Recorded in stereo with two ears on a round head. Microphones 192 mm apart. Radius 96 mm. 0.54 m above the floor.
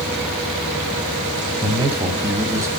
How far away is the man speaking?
About 3.5 m.